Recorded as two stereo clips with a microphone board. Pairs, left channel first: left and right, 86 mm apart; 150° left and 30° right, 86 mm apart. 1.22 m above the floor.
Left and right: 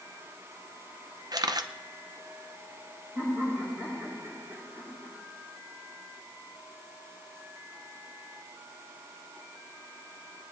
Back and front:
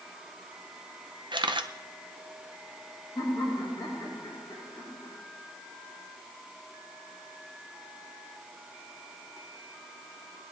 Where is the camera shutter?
50° right, 0.7 m.